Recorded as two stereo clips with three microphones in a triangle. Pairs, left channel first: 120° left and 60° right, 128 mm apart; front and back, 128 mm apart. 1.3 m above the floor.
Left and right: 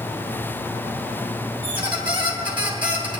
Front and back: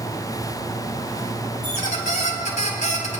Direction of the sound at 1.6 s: 15° right.